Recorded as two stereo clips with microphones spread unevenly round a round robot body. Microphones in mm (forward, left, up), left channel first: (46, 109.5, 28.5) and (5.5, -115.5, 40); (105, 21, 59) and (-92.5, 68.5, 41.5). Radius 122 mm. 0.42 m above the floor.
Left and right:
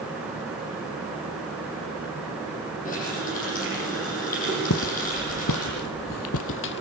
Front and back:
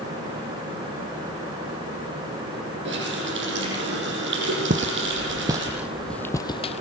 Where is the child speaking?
I don't hear a child speaking.